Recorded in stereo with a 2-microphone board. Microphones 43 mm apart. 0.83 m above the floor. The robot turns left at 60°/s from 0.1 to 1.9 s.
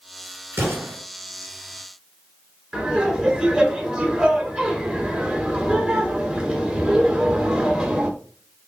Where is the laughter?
15° right (ahead or behind), 3 m.